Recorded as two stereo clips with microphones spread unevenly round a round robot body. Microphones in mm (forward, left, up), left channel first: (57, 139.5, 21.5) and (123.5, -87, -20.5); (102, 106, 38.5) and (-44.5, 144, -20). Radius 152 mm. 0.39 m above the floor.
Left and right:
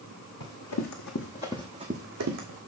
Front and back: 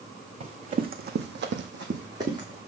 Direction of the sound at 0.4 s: 125° left.